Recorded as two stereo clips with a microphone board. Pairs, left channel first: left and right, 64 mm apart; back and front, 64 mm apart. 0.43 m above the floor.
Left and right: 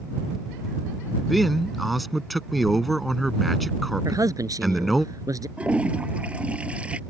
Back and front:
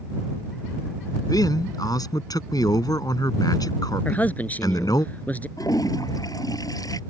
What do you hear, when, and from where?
1.2 s a man speaking: straight behind
4.0 s a man speaking: 115° right
5.6 s a toilet flushing: 165° right